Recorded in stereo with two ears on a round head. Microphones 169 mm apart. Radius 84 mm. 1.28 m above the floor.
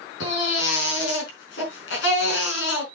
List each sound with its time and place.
0.2 s a baby crying: 80° left, 4.5 m